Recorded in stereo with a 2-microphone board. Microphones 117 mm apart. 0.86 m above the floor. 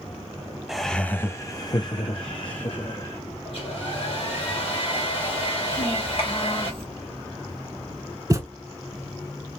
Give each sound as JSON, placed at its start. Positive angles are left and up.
{"t": 0.7, "sound": "laughter", "side_deg": -5, "distance_m": 0.5}
{"t": 3.5, "sound": "a hair dryer", "side_deg": 55, "distance_m": 2.0}
{"t": 5.7, "sound": "a child speaking", "side_deg": 55, "distance_m": 1.8}
{"t": 8.3, "sound": "a thud", "side_deg": -30, "distance_m": 0.8}